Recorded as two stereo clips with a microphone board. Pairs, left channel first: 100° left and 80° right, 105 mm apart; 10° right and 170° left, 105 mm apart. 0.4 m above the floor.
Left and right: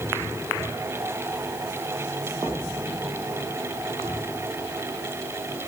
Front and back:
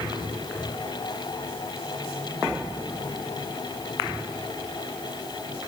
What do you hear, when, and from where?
Only background noise.